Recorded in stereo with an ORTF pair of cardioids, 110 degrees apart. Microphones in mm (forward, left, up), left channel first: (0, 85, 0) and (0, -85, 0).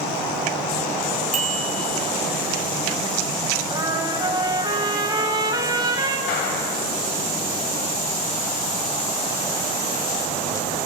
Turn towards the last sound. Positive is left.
turn(degrees=70)